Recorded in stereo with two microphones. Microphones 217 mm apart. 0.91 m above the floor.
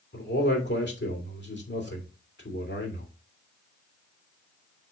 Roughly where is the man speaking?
Left.